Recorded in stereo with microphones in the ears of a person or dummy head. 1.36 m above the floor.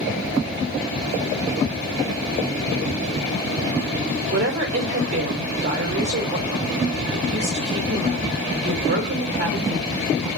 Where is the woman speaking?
55° right (ahead or behind), 1.6 m.